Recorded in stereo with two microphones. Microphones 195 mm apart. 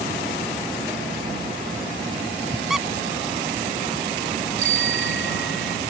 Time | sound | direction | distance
2.7 | a squeak | centre (ahead or behind) | ?
4.6 | a bicycle bell | 70° left (ahead or behind) | ?